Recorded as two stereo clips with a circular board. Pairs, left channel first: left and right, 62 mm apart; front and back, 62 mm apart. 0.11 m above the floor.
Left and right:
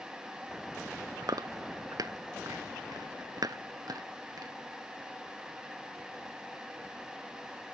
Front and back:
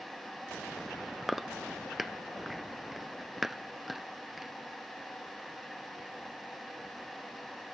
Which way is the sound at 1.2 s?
90° right.